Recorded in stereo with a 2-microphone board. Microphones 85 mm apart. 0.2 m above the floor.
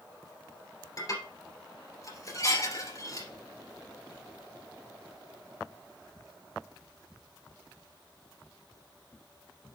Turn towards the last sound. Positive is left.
turn(degrees=40)  # may be behind; listen again after turning